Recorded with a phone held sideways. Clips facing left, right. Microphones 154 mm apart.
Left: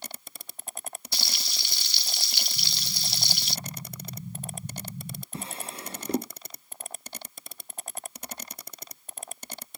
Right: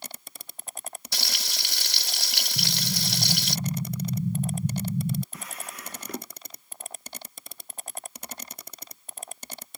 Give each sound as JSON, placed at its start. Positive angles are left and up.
{"t": 1.1, "sound": "frying", "side_deg": -75}
{"t": 2.6, "sound": "an explosion", "side_deg": -45}
{"t": 5.3, "sound": "a drawer", "side_deg": 30}